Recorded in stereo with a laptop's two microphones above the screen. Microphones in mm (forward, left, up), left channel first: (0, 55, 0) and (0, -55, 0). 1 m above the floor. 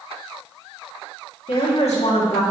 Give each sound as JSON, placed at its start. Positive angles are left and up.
{"t": 1.5, "sound": "a woman speaking", "side_deg": 75, "distance_m": 2.0}